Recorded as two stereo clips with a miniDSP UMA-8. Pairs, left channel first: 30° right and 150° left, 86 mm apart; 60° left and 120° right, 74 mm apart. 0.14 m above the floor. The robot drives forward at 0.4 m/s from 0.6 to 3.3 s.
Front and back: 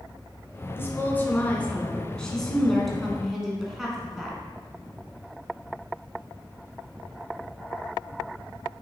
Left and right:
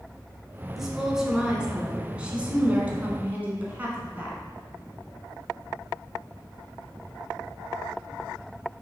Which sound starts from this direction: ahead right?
A woman speaking, at 0.8 s.